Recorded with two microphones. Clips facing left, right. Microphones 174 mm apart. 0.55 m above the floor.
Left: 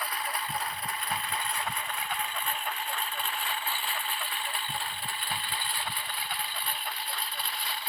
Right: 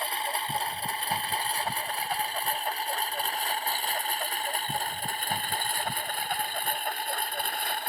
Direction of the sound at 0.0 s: 30° right (ahead or behind).